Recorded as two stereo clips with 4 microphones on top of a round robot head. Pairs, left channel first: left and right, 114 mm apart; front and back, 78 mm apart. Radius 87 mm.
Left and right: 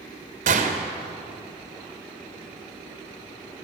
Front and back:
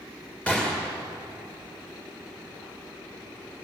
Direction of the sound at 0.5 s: 80° right.